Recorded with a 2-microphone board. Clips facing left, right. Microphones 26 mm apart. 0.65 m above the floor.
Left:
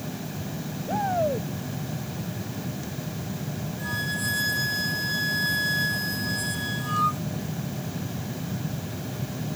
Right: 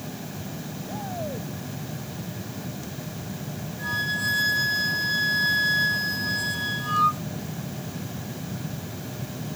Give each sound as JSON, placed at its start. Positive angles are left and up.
{"t": 0.9, "sound": "a shout", "side_deg": 80}
{"t": 3.8, "sound": "a flute", "side_deg": -10}